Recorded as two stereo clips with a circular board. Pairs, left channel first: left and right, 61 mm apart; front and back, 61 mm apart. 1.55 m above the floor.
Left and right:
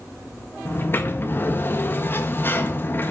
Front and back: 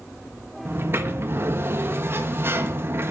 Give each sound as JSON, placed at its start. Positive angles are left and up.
{"t": 0.7, "sound": "a sliding door", "azimuth_deg": 140, "distance_m": 1.3}